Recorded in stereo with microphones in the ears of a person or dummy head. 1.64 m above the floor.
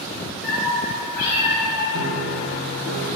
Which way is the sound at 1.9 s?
80° left.